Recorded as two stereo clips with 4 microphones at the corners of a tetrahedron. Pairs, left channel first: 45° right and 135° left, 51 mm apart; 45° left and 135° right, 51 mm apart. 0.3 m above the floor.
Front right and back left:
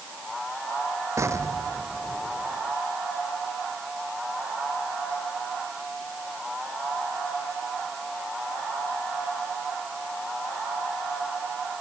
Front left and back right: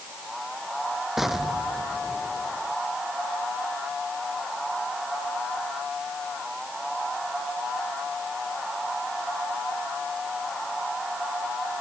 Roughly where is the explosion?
Behind left.